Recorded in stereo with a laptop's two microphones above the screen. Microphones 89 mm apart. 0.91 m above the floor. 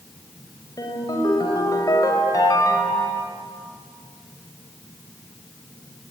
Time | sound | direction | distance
0.8 | a ringtone | 40° left (ahead or behind) | 3.5 m